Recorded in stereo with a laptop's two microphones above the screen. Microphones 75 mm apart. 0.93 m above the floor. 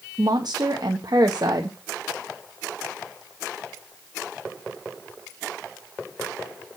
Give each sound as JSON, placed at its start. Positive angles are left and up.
{"t": 0.2, "sound": "a woman speaking", "side_deg": -60, "distance_m": 0.7}